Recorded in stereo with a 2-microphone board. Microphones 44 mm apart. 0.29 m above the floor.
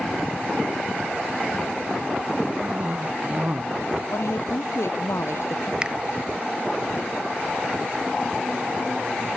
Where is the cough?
35° right (ahead or behind).